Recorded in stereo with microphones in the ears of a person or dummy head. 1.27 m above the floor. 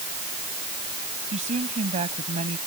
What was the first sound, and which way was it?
A woman speaking, 40° right (ahead or behind).